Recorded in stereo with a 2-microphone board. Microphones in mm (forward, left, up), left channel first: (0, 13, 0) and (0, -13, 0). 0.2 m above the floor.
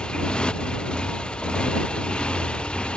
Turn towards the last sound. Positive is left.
turn(degrees=50)  # may be behind; listen again after turning